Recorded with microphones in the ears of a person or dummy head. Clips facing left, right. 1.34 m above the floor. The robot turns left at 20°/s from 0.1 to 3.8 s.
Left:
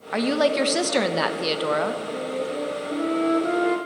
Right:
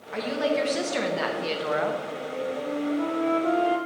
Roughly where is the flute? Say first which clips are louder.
Left 3 dB; ahead left.